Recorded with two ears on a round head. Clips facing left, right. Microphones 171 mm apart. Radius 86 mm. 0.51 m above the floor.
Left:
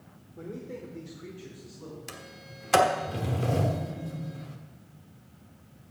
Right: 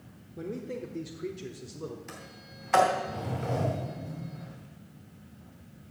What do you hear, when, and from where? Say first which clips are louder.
0.4 s a man speaking: right 3 dB; 25° right (ahead or behind), 1.1 m; by 2.0 s 60° right (ahead or behind), 1.4 m
2.1 s a sliding door: left 1 dB; 40° left (ahead or behind), 1.1 m